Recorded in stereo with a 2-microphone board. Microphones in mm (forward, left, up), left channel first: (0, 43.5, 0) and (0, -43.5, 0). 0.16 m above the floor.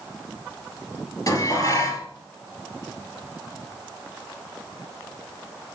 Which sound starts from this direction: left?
Dishes clattering, at 1.3 s.